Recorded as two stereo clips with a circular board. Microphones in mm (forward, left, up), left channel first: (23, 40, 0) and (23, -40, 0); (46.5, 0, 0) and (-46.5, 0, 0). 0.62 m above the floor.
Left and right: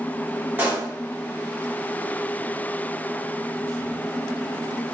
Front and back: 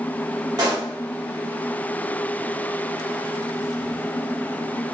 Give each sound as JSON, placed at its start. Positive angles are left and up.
{"t": 0.6, "sound": "a pop", "azimuth_deg": -155, "distance_m": 1.2}